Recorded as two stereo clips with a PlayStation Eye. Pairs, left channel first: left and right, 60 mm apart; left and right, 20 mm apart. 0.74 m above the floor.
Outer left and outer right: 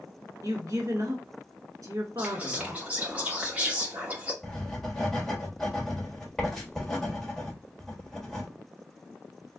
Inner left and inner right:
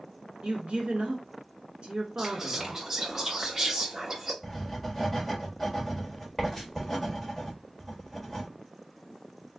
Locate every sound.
0.4 s a woman speaking: 65° right (ahead or behind), 1.3 m
2.2 s whispering: 25° right (ahead or behind), 1.0 m
4.4 s writing: 10° left (ahead or behind), 1.4 m